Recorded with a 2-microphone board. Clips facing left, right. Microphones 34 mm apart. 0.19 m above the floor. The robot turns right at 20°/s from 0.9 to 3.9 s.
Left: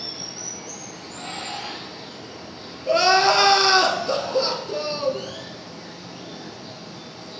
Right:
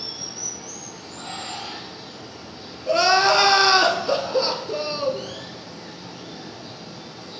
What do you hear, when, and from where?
0.0 s running water: 125° left, 4.5 m; by 7.4 s 175° right, 4.5 m
2.9 s crying: 5° left (ahead or behind), 0.9 m; by 5.3 s 15° right (ahead or behind), 0.9 m